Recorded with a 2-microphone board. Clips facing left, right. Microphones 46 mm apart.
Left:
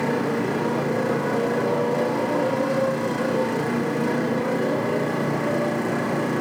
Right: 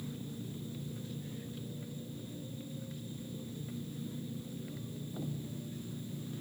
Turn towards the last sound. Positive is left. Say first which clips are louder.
# left 22 dB
turn(degrees=80)